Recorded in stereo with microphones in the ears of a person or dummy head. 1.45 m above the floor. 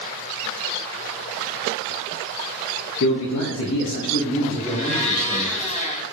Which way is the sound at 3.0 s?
65° left (ahead or behind).